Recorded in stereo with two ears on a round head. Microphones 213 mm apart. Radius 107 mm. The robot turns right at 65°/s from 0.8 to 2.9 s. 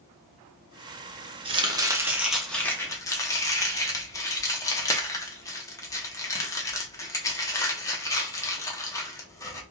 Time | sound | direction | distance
1.4 | chopping | 20° right (ahead or behind) | 0.7 m